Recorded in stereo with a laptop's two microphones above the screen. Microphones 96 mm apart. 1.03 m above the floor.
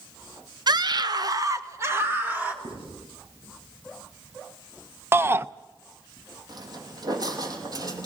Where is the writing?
85° right, 9.5 m.